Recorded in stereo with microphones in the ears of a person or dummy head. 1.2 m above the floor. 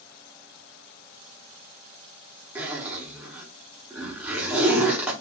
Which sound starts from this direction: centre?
A zipper, at 2.5 s.